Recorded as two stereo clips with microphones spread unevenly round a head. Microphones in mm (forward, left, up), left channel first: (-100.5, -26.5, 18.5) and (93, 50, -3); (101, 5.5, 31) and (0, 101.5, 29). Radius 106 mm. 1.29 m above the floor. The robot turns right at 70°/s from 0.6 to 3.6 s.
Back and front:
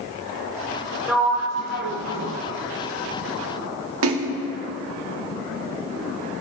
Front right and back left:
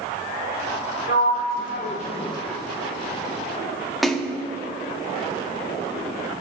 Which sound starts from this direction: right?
A sliding door, at 1.1 s.